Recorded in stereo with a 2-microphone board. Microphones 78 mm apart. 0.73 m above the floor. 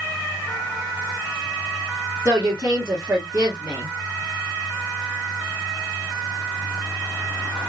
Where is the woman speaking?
25° right (ahead or behind), 1.6 m.